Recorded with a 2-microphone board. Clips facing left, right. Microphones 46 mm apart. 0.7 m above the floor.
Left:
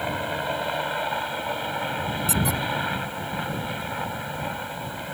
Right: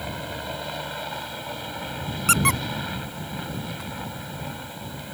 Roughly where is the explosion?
No explosion in this recording.